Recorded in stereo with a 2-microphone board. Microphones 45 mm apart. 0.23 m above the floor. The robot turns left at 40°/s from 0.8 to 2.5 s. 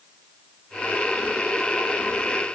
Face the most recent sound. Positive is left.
No sound to turn to.